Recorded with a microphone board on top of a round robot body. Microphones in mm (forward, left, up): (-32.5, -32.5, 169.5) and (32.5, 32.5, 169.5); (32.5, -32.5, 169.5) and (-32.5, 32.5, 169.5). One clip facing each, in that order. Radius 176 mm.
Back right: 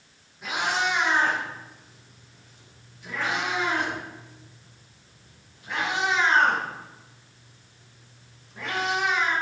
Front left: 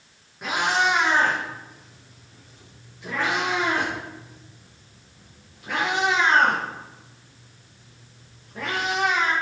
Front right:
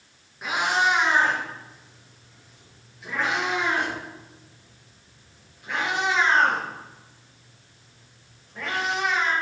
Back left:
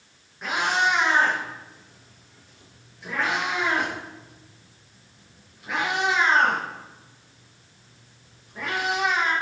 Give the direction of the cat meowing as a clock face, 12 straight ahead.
11 o'clock.